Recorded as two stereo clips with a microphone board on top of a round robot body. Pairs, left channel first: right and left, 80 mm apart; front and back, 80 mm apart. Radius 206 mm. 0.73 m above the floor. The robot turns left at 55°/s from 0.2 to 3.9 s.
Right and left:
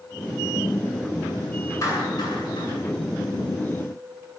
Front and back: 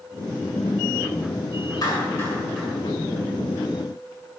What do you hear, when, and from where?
1.8 s a clap: 40° right, 9 m; by 2.7 s 90° right, 9 m